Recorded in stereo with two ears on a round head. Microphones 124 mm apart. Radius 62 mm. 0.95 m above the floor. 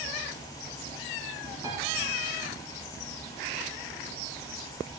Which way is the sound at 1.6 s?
25° right (ahead or behind).